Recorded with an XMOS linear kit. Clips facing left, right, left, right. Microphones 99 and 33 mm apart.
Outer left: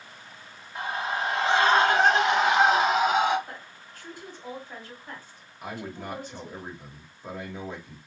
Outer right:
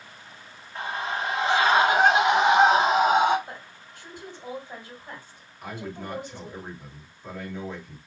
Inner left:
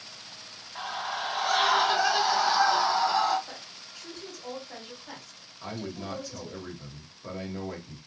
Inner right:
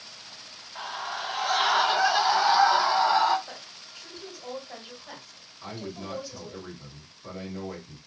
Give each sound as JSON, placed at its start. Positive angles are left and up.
{"t": 0.8, "sound": "a scream", "side_deg": 10, "distance_m": 1.7}
{"t": 3.5, "sound": "a woman speaking", "side_deg": -20, "distance_m": 2.0}
{"t": 5.6, "sound": "a man speaking", "side_deg": 15, "distance_m": 1.2}